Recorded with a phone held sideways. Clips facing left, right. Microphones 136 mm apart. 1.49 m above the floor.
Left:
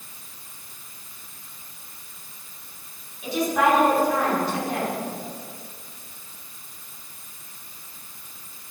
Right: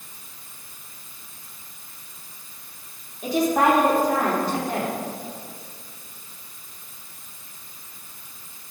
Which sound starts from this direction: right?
A woman speaking, at 3.2 s.